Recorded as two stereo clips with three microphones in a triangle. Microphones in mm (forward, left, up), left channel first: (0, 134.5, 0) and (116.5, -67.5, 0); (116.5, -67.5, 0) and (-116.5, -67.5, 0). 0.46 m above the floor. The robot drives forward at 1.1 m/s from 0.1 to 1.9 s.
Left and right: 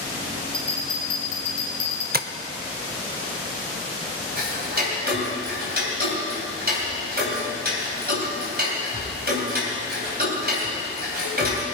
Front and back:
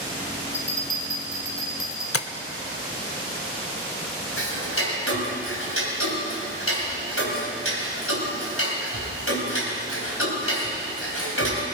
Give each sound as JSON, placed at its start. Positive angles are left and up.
{"t": 0.5, "sound": "a bell", "azimuth_deg": 55, "distance_m": 2.5}
{"t": 2.1, "sound": "tapping", "azimuth_deg": -10, "distance_m": 0.6}
{"t": 4.4, "sound": "ticking", "azimuth_deg": -15, "distance_m": 3.5}